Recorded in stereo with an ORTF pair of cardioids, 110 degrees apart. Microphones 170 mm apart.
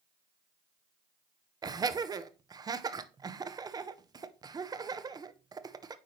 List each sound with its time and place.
1.6 s laughter: 25° right, 0.8 m